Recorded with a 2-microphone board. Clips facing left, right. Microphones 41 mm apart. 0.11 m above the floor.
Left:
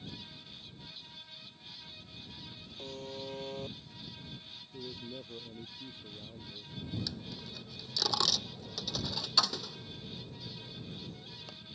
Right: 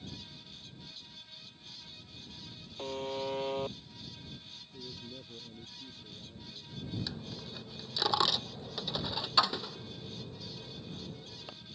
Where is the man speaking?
25° left (ahead or behind).